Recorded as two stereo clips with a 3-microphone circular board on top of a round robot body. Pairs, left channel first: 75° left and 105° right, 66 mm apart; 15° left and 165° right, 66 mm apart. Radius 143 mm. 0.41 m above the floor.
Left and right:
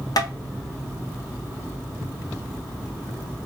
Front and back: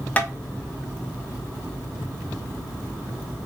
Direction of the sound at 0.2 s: 80° left.